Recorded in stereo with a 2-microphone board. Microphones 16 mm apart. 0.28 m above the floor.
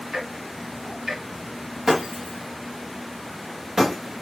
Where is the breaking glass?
40° right (ahead or behind), 1.9 m.